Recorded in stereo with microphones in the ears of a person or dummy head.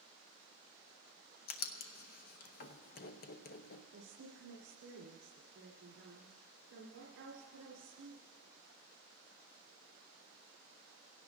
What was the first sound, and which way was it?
Writing, 50° left (ahead or behind).